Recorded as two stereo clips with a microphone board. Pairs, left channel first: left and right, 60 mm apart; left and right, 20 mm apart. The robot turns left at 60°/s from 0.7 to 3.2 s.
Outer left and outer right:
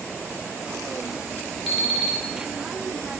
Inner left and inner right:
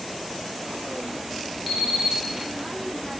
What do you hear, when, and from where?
1.7 s an alarm clock: 165° right, 1.7 m; by 2.2 s 165° left, 1.7 m